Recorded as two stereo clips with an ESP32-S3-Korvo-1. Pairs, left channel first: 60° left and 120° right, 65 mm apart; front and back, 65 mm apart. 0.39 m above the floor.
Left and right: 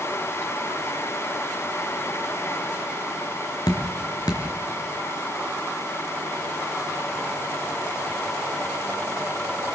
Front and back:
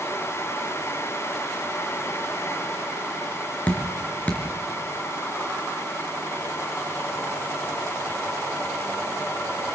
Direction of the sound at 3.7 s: 70° left.